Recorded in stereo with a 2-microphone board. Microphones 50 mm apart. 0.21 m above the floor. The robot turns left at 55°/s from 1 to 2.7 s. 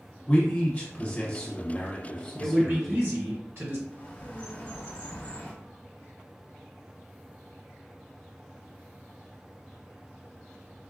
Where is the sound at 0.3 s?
25° left (ahead or behind), 1.2 m; by 3.1 s centre (ahead or behind), 1.2 m.